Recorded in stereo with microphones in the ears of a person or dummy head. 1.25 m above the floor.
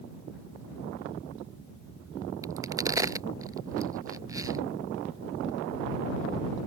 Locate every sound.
2.4 s a crack: 15° right (ahead or behind)